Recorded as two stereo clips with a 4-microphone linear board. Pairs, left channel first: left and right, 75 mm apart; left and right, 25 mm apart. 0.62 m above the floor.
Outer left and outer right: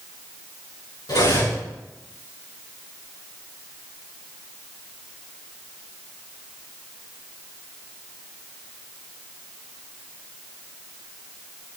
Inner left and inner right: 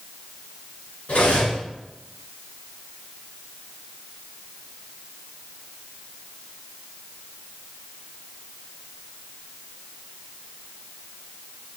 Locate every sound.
1.1 s cutlery clinking: 70° left (ahead or behind), 4 m